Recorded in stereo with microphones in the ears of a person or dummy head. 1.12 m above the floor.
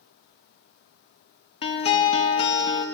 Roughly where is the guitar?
Left.